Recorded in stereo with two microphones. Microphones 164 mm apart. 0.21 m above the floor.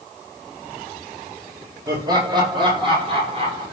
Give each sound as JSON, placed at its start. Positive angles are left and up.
{"t": 1.9, "sound": "laughter", "side_deg": -25, "distance_m": 8.0}